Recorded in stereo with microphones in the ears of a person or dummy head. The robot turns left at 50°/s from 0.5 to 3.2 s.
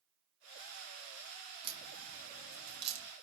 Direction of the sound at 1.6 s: 25° right (ahead or behind).